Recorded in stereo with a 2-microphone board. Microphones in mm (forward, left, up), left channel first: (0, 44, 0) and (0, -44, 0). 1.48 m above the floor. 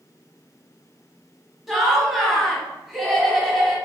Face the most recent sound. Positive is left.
turn(degrees=0)  # may be behind; listen again after turning